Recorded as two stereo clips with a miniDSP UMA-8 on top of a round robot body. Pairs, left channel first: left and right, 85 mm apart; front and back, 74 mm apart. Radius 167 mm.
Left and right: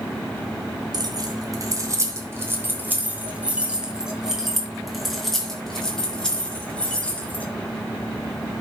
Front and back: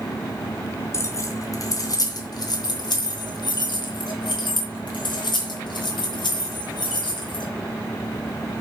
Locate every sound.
0.9 s keys jangling: 50° right, 3 m; by 7.4 s 15° left, 5.5 m